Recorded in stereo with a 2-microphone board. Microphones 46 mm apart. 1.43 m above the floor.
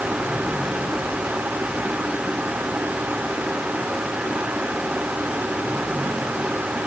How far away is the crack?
I don't hear a crack.